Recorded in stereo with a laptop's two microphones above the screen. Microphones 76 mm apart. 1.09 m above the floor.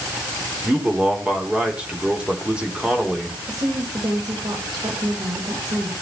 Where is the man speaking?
15° right (ahead or behind), 4 m.